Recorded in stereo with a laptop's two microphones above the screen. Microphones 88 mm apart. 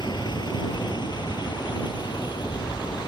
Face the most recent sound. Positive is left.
turn(degrees=55)  # may be behind; listen again after turning